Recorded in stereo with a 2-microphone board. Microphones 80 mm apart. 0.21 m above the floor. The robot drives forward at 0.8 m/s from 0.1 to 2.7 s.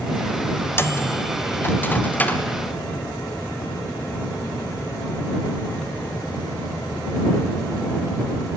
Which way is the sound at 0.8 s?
30° left (ahead or behind).